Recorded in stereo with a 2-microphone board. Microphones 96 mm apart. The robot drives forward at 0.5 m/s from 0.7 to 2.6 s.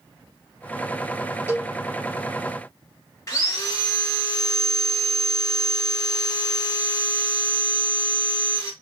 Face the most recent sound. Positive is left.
turn(degrees=35)  # may be behind; listen again after turning